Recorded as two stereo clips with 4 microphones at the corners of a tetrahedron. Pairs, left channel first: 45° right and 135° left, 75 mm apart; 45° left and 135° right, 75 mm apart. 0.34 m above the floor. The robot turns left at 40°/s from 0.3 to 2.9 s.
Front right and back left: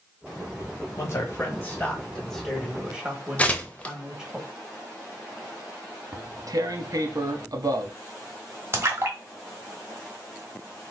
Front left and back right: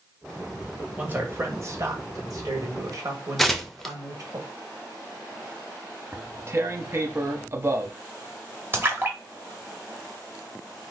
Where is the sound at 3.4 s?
40° right, 0.6 m.